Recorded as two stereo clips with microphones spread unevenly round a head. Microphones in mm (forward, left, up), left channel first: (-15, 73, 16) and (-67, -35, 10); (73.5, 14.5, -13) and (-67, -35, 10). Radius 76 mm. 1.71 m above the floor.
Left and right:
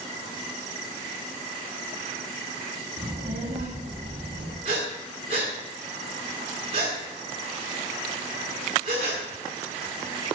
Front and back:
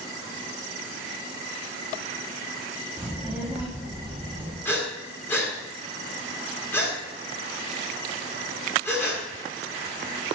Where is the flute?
No flute in this recording.